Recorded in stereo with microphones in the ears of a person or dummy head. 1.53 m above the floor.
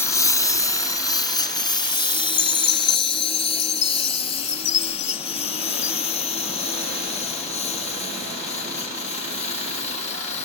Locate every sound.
0.0 s a lawn mower: 20° left (ahead or behind); by 10.5 s 40° left (ahead or behind)
2.3 s a chime: 45° left (ahead or behind)